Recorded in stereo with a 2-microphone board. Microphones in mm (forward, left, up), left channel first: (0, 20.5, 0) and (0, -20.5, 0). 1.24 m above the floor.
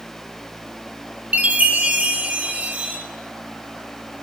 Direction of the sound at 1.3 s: 35° right (ahead or behind).